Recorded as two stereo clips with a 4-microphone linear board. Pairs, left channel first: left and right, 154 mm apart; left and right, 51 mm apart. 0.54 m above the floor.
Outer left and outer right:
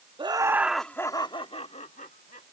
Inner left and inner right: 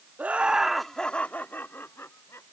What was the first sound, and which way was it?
Laughter, 30° right (ahead or behind).